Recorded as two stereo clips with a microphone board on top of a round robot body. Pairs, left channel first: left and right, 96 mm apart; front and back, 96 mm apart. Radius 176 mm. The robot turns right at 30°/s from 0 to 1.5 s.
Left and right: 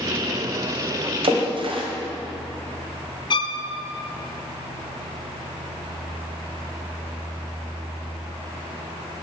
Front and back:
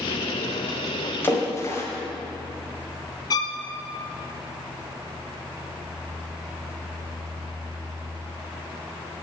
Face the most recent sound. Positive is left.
turn(degrees=50)